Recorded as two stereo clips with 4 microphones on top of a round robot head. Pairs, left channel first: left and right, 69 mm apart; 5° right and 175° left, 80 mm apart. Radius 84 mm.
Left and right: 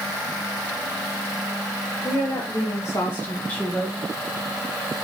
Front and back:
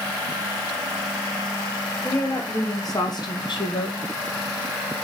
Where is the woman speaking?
50° left, 3 m; by 4.0 s straight ahead, 1.7 m.